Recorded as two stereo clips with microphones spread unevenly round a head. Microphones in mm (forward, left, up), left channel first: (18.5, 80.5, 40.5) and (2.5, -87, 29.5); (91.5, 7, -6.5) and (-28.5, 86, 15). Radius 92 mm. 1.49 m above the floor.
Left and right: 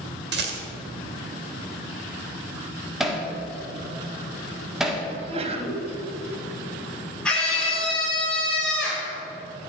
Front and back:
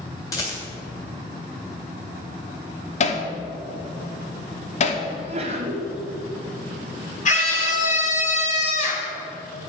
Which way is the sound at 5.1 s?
155° right.